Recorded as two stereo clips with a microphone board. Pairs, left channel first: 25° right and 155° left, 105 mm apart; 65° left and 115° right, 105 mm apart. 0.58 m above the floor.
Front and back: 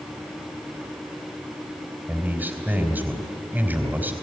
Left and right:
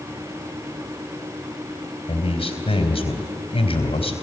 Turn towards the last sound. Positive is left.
turn(degrees=85)